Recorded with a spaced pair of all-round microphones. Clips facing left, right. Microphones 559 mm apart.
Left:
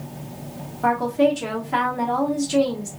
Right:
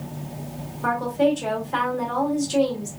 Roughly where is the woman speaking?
Left.